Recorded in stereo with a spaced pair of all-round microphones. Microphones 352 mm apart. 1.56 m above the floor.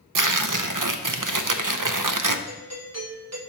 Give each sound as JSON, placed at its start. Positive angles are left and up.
{"t": 0.1, "sound": "tearing paper", "side_deg": -65, "distance_m": 0.6}
{"t": 2.5, "sound": "a doorbell", "side_deg": -50, "distance_m": 1.6}